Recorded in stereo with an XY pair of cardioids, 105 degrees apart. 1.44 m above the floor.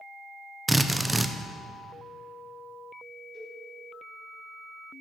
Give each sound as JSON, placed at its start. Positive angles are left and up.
{"t": 0.7, "sound": "a drill", "azimuth_deg": -10, "distance_m": 0.6}
{"t": 3.3, "sound": "a cowbell", "azimuth_deg": 65, "distance_m": 3.5}